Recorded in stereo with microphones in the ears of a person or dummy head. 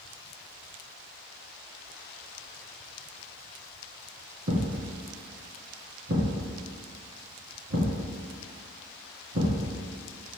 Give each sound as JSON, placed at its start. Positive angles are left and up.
{"t": 4.5, "sound": "a thud", "side_deg": -35, "distance_m": 2.5}